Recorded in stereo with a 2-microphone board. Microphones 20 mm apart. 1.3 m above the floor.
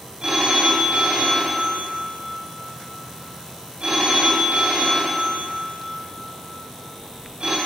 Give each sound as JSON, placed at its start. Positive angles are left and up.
{"t": 0.2, "sound": "a phone ringing", "side_deg": -60, "distance_m": 2.0}